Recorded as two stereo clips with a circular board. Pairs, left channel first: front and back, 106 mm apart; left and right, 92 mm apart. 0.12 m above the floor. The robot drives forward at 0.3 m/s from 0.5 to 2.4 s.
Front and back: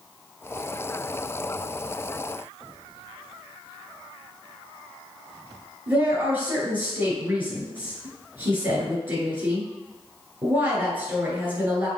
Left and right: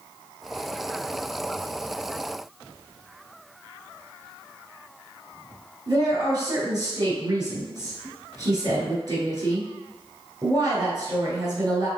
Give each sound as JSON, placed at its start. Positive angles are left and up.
{"t": 5.9, "sound": "a woman speaking", "azimuth_deg": -110, "distance_m": 2.0}